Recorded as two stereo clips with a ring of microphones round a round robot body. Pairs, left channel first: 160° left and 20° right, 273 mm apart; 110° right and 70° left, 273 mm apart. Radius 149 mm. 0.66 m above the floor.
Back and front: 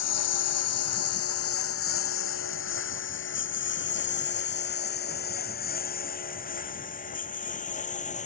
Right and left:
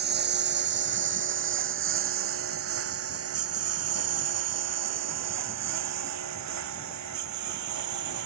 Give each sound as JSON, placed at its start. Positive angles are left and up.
{"t": 0.0, "sound": "a lawn mower", "azimuth_deg": 125}